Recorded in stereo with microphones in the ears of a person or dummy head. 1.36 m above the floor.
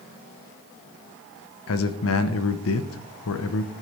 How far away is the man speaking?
About 1.2 m.